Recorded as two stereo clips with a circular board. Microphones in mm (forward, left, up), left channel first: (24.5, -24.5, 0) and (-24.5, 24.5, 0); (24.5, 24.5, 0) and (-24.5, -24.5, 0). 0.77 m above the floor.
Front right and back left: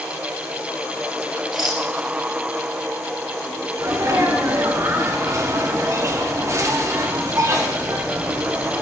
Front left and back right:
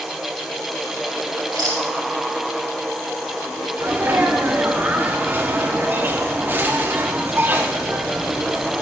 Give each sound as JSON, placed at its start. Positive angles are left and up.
{"t": 1.5, "sound": "a rattle", "azimuth_deg": -135, "distance_m": 2.5}
{"t": 3.8, "sound": "a sneeze", "azimuth_deg": 170, "distance_m": 1.2}